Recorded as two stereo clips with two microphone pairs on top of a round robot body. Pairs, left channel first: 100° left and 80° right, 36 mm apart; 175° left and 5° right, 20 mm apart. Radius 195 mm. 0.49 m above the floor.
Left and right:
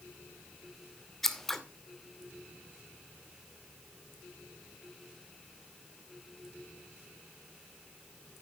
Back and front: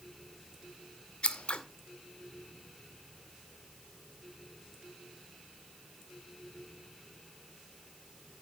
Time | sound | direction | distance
1.2 | scissors | 175° right | 2.5 m